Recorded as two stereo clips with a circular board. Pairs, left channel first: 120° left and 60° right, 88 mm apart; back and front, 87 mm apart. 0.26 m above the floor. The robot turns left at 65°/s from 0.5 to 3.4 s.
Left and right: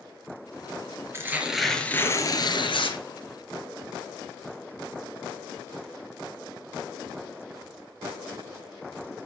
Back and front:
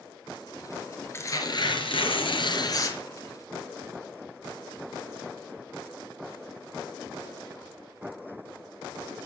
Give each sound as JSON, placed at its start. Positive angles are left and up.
{"t": 1.1, "sound": "tearing paper", "azimuth_deg": -120, "distance_m": 3.5}